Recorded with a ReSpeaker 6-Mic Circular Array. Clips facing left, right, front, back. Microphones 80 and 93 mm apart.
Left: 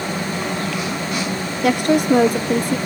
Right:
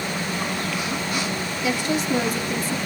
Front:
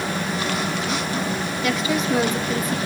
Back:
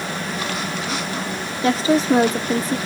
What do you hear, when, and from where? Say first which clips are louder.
1.6 s a woman speaking: left 8 dB, back 7 dB; 120° left, 0.9 m